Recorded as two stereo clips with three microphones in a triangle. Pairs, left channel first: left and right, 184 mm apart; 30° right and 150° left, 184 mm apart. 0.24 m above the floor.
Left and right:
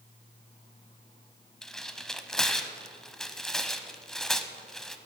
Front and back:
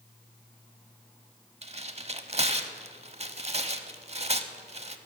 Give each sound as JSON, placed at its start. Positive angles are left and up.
{"t": 1.6, "sound": "tearing paper", "azimuth_deg": 175, "distance_m": 0.6}